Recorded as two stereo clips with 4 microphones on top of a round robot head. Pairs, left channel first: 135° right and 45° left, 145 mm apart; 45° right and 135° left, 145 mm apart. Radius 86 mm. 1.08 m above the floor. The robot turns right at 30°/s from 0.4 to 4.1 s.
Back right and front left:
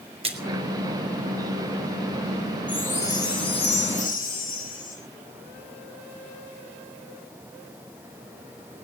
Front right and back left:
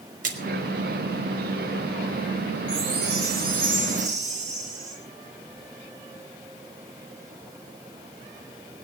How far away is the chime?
About 4 m.